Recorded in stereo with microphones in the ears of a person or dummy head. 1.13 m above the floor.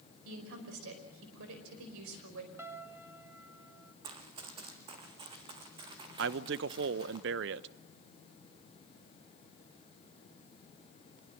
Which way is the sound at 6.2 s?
60° right (ahead or behind).